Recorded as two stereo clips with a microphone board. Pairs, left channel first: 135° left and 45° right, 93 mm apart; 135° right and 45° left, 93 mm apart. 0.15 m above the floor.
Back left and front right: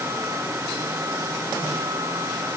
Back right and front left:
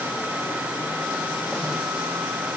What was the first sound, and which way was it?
Only background noise.